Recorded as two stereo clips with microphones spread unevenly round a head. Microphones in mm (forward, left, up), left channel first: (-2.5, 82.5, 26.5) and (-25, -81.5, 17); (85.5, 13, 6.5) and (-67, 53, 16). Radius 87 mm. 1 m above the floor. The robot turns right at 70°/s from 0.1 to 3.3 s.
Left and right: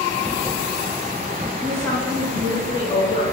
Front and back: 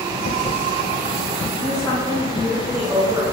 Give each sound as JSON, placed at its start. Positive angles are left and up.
{"t": 1.6, "sound": "a woman speaking", "azimuth_deg": -15, "distance_m": 0.7}